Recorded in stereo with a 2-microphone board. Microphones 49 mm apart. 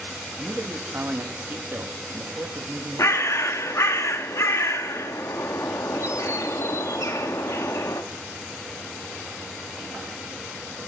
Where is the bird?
70° left (ahead or behind), 0.6 m.